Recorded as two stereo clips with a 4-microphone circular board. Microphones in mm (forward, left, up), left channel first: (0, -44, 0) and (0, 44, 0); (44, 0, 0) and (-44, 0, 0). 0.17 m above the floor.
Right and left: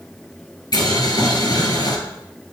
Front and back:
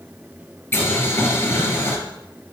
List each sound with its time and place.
0.7 s boiling: 55° right, 1.8 m